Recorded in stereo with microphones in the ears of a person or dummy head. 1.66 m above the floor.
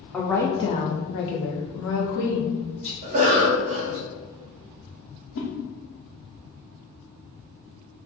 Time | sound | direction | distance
0.1 | a woman speaking | 5° left (ahead or behind) | 1.0 m
3.0 | a cough | 40° right (ahead or behind) | 0.9 m
5.3 | a whoosh | 70° left (ahead or behind) | 1.1 m